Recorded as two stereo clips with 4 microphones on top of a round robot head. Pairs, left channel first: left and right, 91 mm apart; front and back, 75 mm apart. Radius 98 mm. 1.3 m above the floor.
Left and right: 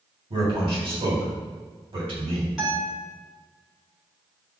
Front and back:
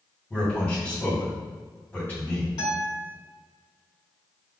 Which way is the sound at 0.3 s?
70° right.